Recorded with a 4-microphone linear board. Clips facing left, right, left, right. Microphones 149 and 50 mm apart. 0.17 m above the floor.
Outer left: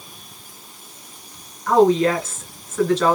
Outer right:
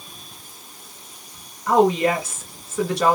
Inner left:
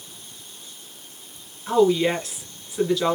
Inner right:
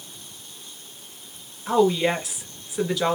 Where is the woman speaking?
10° right (ahead or behind), 2.5 m.